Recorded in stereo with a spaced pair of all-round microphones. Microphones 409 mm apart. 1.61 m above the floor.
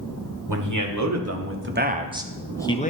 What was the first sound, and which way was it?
A man speaking, 50° right (ahead or behind).